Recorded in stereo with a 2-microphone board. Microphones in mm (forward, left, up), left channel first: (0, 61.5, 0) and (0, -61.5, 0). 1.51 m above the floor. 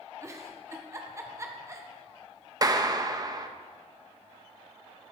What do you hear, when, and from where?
0.2 s a giggle: 25° right (ahead or behind), 1.4 m
2.6 s a clap: 30° right (ahead or behind), 0.9 m